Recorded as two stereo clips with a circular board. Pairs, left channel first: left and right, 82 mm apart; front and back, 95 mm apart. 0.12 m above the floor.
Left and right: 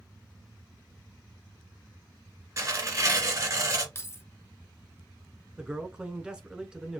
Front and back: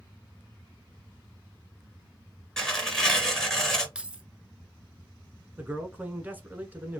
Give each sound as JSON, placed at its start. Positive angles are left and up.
{"t": 2.6, "sound": "tearing paper", "azimuth_deg": -80, "distance_m": 1.9}
{"t": 4.0, "sound": "keys jangling", "azimuth_deg": 110, "distance_m": 0.9}
{"t": 5.6, "sound": "a man speaking", "azimuth_deg": -150, "distance_m": 1.1}